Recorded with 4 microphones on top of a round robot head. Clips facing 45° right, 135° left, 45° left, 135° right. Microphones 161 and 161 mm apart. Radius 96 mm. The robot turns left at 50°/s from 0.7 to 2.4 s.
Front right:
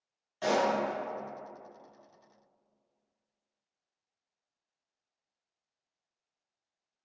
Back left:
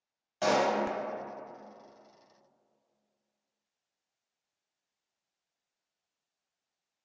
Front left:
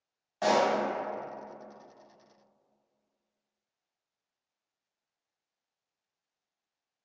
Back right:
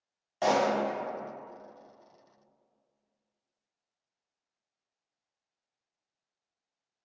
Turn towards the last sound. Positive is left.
turn(degrees=80)